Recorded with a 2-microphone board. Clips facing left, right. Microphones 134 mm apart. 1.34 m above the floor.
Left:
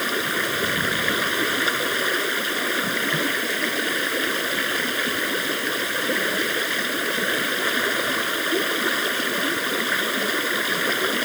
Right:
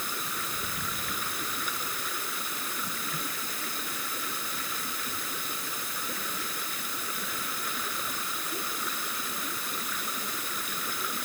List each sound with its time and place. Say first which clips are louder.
0.0 s running water: left 12 dB; 85° left